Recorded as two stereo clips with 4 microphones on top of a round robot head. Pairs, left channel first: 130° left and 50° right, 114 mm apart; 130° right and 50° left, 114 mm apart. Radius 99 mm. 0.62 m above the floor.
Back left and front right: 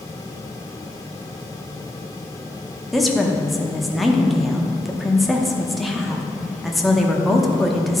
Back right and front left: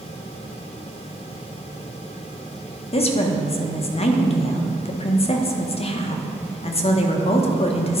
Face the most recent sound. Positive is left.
turn(degrees=-140)